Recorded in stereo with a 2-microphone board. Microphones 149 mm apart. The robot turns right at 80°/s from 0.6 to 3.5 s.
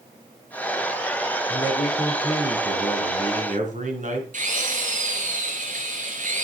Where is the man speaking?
135° left, 3.5 m; by 4.2 s 65° right, 3.5 m.